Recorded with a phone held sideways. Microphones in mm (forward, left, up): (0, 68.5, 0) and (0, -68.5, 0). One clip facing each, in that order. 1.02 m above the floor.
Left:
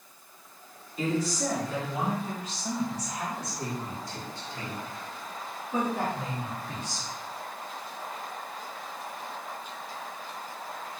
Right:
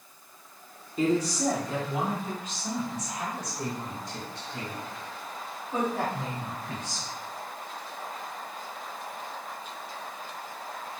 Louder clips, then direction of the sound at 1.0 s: Right 3 dB; 40° right (ahead or behind).